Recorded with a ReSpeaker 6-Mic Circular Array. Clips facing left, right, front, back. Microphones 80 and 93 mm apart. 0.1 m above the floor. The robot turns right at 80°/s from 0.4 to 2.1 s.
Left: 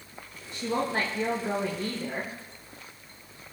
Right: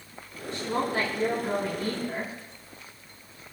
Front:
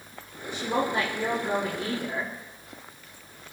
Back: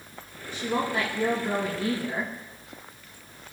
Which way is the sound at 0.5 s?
20° left.